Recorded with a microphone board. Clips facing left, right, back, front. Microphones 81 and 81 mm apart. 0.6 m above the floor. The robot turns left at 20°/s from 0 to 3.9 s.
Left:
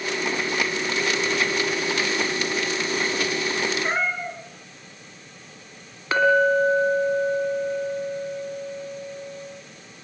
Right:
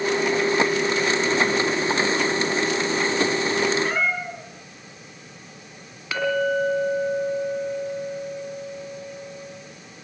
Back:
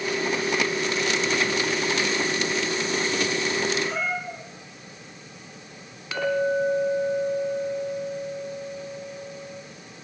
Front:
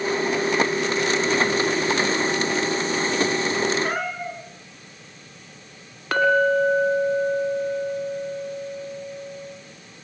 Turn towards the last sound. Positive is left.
turn(degrees=35)